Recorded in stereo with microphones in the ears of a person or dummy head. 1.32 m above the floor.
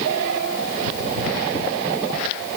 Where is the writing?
No writing in this recording.